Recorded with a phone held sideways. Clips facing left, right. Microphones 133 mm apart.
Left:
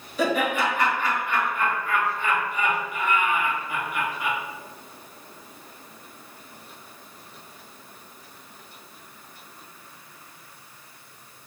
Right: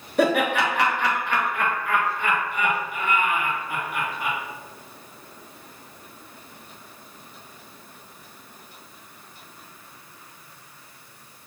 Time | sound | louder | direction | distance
0.2 | laughter | right 3 dB | 60° right (ahead or behind) | 1.1 m